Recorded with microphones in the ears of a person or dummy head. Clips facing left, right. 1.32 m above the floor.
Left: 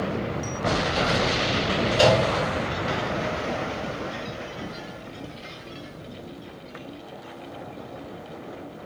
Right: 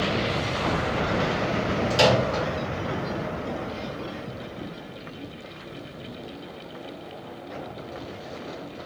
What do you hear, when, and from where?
1.9 s a microwave: 70° right (ahead or behind), 1.1 m